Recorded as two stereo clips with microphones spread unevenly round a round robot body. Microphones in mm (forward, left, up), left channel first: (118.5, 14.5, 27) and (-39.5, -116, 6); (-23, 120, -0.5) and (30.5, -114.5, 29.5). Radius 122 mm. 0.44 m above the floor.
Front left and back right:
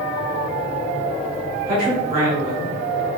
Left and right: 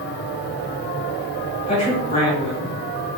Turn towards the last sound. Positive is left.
turn(degrees=160)